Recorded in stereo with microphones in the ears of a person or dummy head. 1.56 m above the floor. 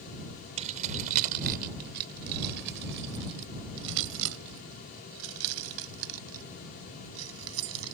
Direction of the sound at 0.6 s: 40° right (ahead or behind).